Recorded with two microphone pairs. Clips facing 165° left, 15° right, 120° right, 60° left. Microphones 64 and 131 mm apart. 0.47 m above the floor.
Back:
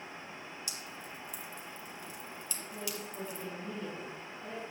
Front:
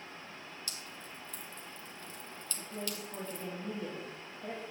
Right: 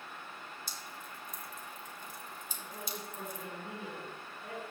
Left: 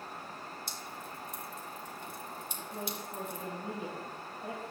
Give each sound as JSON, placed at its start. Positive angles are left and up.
{"t": 0.7, "sound": "dripping", "azimuth_deg": 90, "distance_m": 2.0}
{"t": 2.6, "sound": "a woman speaking", "azimuth_deg": 10, "distance_m": 2.5}